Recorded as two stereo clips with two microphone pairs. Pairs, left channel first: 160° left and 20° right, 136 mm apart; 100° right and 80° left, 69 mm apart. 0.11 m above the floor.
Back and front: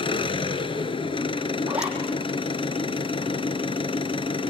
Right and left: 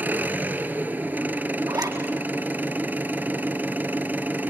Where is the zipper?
60° left, 4 m.